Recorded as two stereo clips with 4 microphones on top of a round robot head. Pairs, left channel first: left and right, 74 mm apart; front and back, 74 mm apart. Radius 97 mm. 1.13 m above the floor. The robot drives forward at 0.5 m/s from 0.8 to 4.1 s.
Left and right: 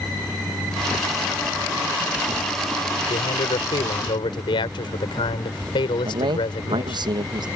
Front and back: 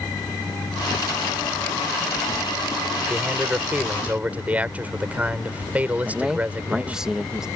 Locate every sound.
3.1 s a man speaking: 105° left; by 7.0 s 110° left
6.0 s a man speaking: 95° right